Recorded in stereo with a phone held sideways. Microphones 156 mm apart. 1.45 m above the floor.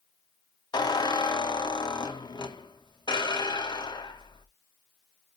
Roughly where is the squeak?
Left.